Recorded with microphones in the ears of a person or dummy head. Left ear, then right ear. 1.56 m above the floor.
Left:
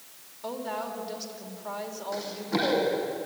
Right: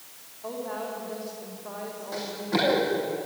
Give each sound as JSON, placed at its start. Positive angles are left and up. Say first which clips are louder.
{"t": 0.4, "sound": "a woman speaking", "louder": "even", "side_deg": 70, "distance_m": 4.5}
{"t": 2.1, "sound": "running footsteps", "louder": "right 3 dB", "side_deg": -5, "distance_m": 5.0}